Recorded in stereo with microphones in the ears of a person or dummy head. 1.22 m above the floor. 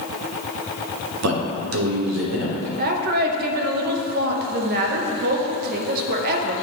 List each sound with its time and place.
1.2 s a man speaking: 65° right (ahead or behind), 1.1 m; by 2.7 s 80° right, 1.8 m
2.8 s a woman speaking: 45° right (ahead or behind), 0.8 m